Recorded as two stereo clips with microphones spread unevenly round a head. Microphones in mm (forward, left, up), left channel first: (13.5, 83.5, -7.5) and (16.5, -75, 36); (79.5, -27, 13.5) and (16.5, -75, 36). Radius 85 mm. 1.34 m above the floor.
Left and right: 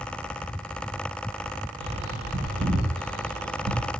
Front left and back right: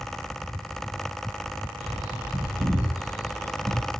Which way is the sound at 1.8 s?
70° right.